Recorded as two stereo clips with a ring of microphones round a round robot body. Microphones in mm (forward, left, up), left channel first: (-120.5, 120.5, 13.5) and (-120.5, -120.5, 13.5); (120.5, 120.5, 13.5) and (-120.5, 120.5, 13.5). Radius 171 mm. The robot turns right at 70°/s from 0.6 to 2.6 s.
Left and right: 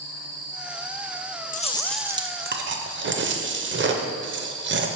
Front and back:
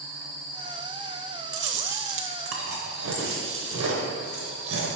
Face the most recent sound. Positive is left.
turn(degrees=-135)